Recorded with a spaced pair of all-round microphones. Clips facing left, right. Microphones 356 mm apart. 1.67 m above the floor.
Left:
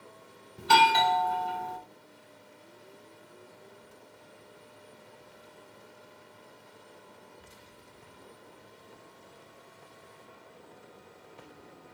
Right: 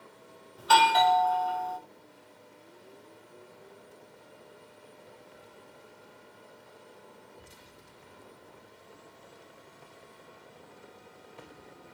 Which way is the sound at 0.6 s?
35° left (ahead or behind).